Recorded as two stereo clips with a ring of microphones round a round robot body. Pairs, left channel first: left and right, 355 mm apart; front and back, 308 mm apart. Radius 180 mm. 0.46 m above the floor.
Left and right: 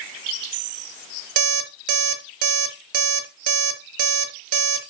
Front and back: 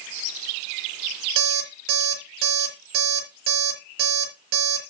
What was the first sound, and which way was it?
An alarm clock, 130° right.